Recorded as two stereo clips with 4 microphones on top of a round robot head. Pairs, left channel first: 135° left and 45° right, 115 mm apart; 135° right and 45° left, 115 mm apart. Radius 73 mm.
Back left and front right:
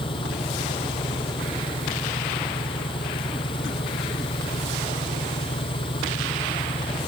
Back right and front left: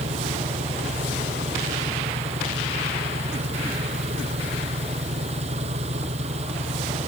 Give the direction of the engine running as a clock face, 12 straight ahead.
9 o'clock.